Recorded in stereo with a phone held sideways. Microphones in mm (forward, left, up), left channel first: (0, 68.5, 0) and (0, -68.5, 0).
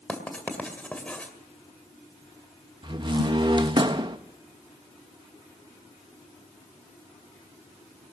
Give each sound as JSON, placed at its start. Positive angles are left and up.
{"t": 0.1, "sound": "writing", "side_deg": 10, "distance_m": 2.0}
{"t": 2.8, "sound": "a door slam", "side_deg": -35, "distance_m": 0.8}